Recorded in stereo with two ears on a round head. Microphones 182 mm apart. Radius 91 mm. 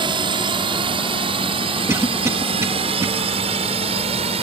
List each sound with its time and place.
0.0 s a drone: 25° right (ahead or behind); by 4.4 s 30° right (ahead or behind)
1.9 s a cough: 15° right (ahead or behind)